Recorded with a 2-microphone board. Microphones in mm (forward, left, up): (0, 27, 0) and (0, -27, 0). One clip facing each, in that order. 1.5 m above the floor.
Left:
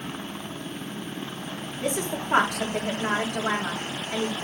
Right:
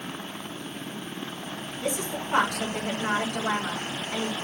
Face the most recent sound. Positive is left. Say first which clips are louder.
# left 2 dB
turn(degrees=50)  # may be behind; listen again after turning